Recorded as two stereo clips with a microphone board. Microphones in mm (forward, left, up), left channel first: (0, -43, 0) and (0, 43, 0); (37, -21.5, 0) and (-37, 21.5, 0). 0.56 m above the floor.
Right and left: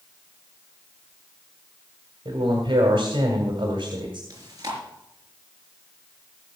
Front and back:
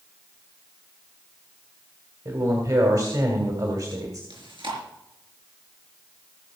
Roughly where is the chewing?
Behind left.